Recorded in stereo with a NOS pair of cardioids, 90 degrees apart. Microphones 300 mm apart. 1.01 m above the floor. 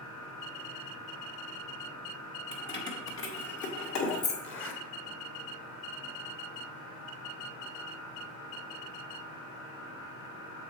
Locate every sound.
2.5 s keys jangling: 30° left, 1.5 m; by 4.3 s 70° left, 1.6 m
4.4 s a zipper: 40° left, 1.2 m